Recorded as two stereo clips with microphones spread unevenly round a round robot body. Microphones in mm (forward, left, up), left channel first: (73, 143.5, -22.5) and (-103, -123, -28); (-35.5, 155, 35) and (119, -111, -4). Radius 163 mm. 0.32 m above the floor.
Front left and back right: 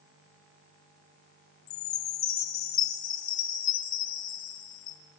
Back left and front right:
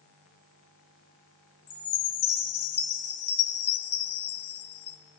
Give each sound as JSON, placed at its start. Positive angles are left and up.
{"t": 1.7, "sound": "a chime", "azimuth_deg": 85, "distance_m": 2.0}